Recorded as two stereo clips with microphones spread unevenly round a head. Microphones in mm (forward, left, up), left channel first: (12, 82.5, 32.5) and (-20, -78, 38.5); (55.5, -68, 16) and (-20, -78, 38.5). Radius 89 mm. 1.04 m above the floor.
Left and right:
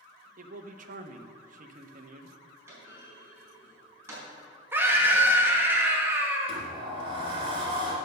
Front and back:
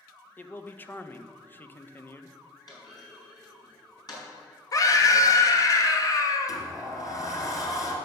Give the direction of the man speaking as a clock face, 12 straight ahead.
2 o'clock.